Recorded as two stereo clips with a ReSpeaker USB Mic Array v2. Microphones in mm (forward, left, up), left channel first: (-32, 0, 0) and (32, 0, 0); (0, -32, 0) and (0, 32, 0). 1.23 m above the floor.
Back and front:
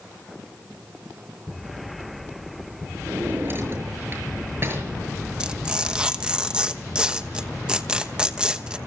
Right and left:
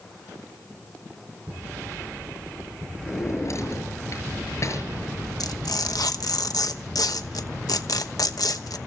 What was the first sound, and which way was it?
A drawer, 50° right.